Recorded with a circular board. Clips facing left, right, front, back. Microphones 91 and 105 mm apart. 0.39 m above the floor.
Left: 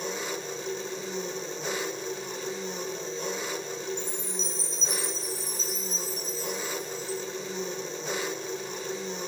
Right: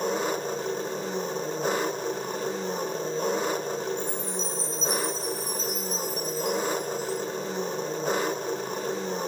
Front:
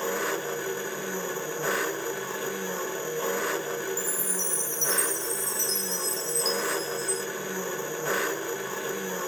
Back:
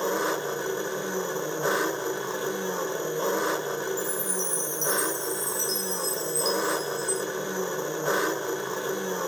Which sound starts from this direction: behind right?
An engine running, at 0.0 s.